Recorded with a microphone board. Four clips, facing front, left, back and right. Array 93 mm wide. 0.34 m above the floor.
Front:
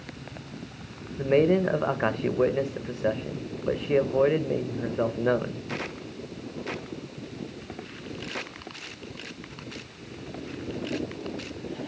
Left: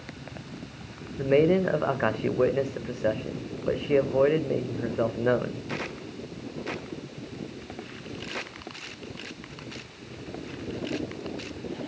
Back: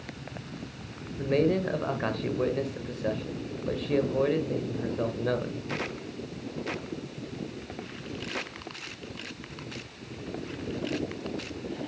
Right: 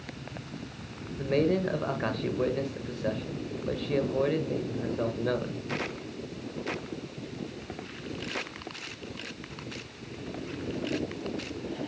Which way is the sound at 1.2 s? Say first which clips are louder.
Left 5 dB, front 4 dB; 50° left.